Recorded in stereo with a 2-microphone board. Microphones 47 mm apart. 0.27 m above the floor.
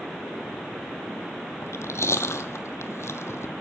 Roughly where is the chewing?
Left.